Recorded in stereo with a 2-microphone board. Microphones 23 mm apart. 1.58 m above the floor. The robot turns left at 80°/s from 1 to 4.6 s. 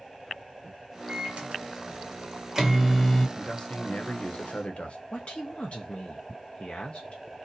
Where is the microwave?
35° right (ahead or behind), 0.8 m; by 3.3 s 30° left (ahead or behind), 0.8 m.